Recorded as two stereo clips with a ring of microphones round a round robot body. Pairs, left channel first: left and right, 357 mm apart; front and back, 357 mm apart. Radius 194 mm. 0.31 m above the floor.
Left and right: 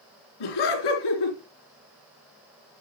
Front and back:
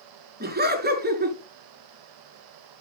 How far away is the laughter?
About 4 m.